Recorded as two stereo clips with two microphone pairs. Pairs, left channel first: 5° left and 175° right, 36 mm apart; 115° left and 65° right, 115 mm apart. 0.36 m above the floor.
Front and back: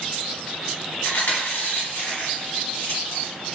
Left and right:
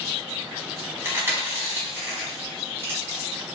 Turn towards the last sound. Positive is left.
turn(degrees=0)